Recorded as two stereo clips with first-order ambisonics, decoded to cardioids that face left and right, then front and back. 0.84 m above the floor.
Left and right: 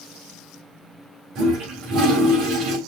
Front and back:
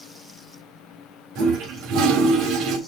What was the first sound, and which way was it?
A toilet flushing, 135° right.